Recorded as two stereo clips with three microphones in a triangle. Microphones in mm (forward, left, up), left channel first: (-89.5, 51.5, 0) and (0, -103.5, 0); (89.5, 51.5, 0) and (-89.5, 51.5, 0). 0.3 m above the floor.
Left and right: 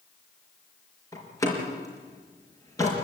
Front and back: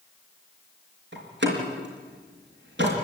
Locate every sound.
1.1 s a door slam: 165° right, 4 m